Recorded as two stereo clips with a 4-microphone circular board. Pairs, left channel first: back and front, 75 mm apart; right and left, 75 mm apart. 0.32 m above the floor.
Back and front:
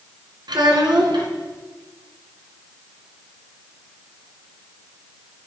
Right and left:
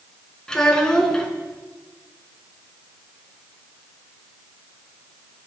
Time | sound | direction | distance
0.5 | a child speaking | 10° right | 1.8 m